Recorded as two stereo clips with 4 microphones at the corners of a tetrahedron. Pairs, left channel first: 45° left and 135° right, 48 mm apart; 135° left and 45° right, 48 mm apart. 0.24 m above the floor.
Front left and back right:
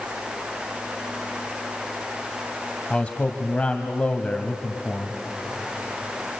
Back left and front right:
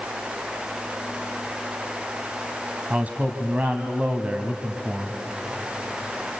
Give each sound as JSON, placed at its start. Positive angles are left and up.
{"t": 2.9, "sound": "a man speaking", "azimuth_deg": -10, "distance_m": 1.4}